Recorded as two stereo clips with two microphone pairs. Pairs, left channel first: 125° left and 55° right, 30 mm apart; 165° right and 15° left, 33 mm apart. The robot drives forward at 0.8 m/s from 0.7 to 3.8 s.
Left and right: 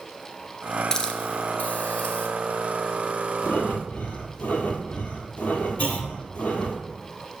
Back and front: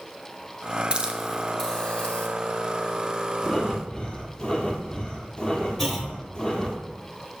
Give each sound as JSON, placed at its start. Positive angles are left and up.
{"t": 0.9, "sound": "a hiss", "azimuth_deg": 65, "distance_m": 0.7}
{"t": 3.4, "sound": "breathing", "azimuth_deg": 120, "distance_m": 1.0}
{"t": 5.8, "sound": "a clunk", "azimuth_deg": 120, "distance_m": 1.0}